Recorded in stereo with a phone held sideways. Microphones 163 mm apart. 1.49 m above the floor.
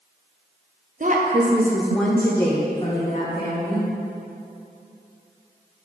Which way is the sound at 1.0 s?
55° right (ahead or behind).